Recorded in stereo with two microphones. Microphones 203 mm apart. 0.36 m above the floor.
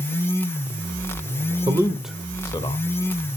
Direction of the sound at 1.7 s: 25° right (ahead or behind).